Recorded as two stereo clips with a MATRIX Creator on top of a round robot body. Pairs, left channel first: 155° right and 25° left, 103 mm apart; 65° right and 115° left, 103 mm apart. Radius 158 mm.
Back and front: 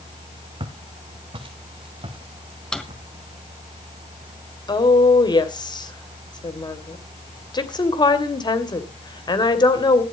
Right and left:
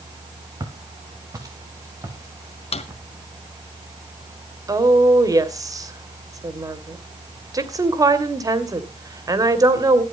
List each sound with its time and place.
0.6 s footsteps: 60° left, 3.5 m; by 3.7 s 50° left, 6 m
2.7 s a drawer: 75° right, 1.9 m
4.7 s a woman speaking: 165° left, 2.5 m